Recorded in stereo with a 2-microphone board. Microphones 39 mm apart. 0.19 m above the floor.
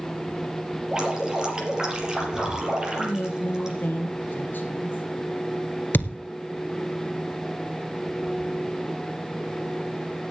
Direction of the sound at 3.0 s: 55° left (ahead or behind).